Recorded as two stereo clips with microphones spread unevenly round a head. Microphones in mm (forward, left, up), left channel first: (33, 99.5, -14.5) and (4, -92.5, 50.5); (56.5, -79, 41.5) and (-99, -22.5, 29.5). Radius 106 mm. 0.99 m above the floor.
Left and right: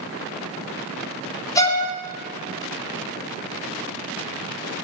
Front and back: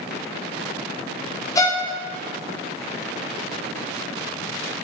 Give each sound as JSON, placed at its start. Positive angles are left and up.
{"t": 1.6, "sound": "a violin", "azimuth_deg": 50, "distance_m": 0.9}